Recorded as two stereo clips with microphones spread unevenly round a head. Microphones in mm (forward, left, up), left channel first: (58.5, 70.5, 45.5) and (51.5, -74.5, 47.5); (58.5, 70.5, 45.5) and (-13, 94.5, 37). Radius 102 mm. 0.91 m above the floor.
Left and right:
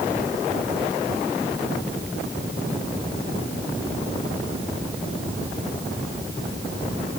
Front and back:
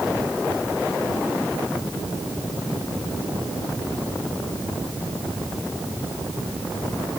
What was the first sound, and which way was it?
Only background noise.